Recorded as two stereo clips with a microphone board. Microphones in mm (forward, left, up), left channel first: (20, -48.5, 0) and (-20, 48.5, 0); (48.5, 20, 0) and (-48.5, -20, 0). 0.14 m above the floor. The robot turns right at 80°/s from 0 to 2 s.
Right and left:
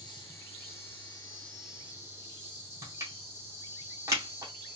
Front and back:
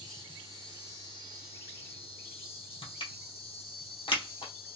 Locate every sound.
0.0 s an insect: 110° right, 3 m; by 4.8 s 50° left, 3 m
2.8 s crushing: 55° left, 2.0 m